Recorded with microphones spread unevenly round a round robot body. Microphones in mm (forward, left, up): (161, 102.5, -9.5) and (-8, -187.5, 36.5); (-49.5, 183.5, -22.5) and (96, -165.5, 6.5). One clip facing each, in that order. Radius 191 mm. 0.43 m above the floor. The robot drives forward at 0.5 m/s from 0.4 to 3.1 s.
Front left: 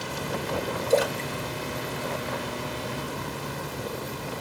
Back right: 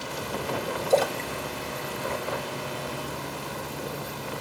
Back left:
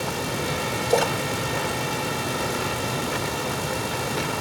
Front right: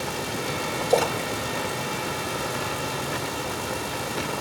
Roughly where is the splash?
Left.